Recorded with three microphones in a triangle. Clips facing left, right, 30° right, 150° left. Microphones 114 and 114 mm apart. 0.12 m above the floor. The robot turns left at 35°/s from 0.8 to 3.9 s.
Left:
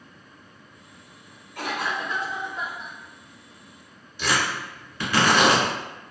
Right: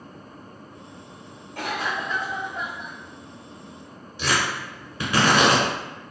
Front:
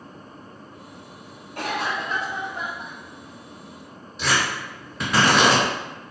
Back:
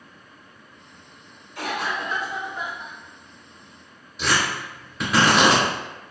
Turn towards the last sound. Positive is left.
turn(degrees=-125)